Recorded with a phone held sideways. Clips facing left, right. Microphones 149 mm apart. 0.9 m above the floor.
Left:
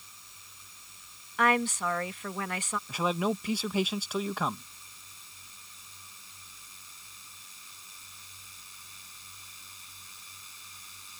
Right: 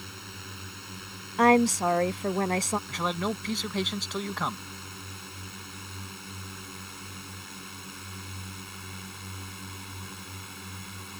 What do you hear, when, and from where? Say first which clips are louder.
0.0 s a drone: right 16 dB; 80° right; by 11.2 s 70° right (ahead or behind)
1.4 s a woman speaking: right 7 dB; 40° right (ahead or behind)
2.9 s a man speaking: left 1 dB; 5° left (ahead or behind)